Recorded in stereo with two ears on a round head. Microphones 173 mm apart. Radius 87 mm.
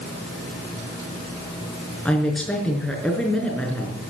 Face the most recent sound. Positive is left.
turn(degrees=5)  # may be behind; listen again after turning